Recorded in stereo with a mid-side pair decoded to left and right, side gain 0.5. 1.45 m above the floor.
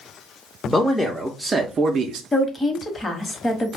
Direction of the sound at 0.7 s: 10° left.